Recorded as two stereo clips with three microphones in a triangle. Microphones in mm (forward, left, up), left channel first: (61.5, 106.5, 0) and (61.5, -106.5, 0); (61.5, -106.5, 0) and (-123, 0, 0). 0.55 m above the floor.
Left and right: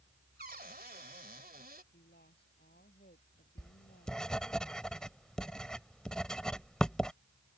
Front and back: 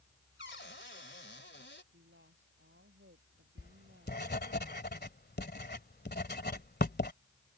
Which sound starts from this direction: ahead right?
A cupboard door, at 0.4 s.